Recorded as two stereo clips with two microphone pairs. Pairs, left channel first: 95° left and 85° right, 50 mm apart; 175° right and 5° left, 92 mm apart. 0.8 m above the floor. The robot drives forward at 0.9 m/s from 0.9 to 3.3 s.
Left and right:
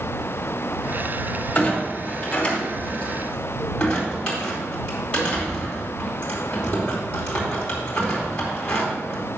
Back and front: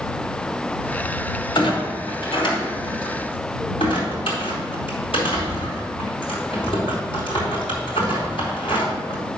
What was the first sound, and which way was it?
A clunk, 155° left.